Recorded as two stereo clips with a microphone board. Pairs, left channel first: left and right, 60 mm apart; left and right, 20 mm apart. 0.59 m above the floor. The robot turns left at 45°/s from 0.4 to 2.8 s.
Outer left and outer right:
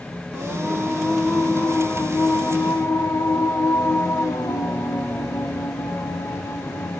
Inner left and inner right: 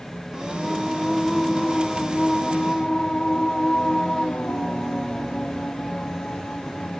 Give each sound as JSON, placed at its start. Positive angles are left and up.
{"t": 0.3, "sound": "singing", "azimuth_deg": -165, "distance_m": 2.0}